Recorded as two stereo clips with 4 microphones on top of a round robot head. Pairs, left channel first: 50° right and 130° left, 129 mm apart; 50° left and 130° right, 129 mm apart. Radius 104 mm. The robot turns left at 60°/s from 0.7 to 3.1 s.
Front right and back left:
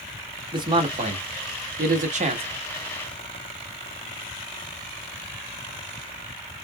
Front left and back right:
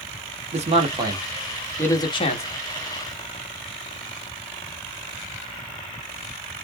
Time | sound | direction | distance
0.5 | a man speaking | 170° right | 1.5 m